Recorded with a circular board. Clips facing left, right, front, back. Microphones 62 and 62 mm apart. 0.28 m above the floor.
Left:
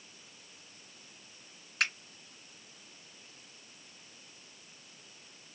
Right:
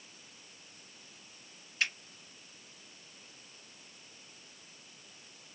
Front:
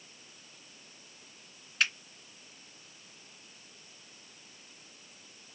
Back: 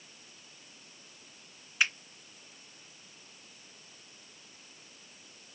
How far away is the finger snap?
About 2 m.